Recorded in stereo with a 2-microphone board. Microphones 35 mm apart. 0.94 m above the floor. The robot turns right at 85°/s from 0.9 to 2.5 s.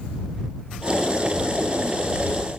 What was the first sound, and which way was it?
Only background noise.